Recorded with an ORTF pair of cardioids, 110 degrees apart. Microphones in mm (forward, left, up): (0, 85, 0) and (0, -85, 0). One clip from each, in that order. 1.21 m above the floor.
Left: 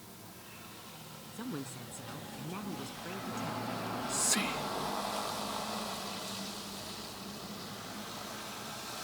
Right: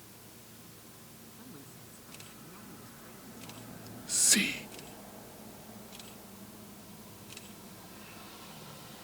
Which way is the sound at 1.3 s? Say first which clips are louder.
Left 13 dB; 65° left.